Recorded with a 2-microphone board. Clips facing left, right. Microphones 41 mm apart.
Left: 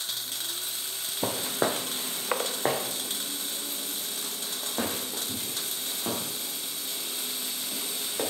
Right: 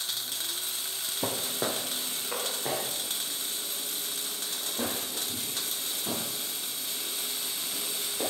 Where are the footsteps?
10° left (ahead or behind), 0.8 m; by 8.2 s 80° left, 6.5 m.